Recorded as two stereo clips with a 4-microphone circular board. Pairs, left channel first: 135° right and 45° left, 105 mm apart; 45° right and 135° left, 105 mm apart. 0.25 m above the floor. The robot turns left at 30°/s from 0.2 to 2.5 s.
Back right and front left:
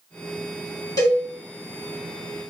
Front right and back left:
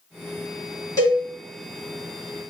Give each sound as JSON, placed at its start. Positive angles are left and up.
{"t": 1.0, "sound": "a cowbell", "azimuth_deg": -90, "distance_m": 1.0}